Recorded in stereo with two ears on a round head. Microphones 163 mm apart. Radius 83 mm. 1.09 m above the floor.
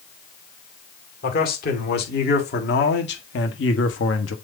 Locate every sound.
1.2 s a man speaking: 55° left (ahead or behind), 2.5 m; by 4.3 s 90° left, 1.3 m